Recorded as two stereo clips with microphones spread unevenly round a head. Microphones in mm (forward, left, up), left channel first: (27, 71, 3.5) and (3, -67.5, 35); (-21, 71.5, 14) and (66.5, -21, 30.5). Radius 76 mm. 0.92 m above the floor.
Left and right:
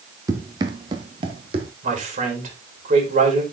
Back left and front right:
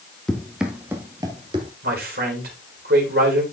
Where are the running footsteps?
135° right, 1.1 m; by 1.7 s 85° right, 1.3 m.